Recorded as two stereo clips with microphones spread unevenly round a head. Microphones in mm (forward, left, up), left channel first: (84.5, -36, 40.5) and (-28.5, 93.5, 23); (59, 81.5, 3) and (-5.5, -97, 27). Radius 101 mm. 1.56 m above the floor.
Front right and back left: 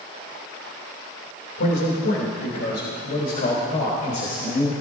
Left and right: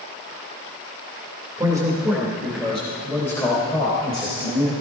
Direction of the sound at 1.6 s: 40° right.